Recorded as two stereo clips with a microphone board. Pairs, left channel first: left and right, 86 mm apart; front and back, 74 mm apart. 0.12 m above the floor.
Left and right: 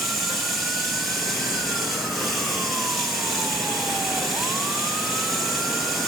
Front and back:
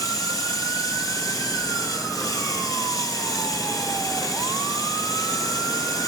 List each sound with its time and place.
0.0 s running water: straight ahead, 2.5 m